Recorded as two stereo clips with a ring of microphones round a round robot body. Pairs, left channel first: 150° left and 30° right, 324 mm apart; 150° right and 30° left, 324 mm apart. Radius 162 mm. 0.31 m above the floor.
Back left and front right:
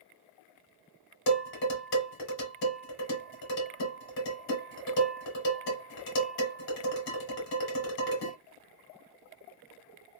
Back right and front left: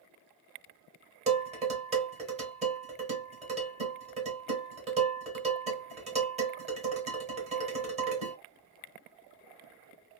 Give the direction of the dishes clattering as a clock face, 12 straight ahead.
9 o'clock.